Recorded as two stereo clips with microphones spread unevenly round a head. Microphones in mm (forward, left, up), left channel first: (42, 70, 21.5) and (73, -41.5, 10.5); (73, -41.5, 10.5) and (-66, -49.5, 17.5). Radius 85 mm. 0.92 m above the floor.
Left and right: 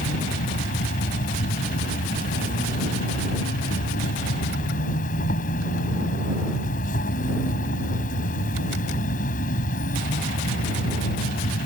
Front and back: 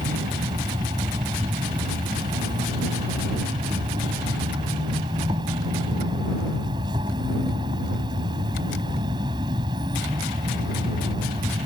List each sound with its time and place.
0.0 s an insect: 115° left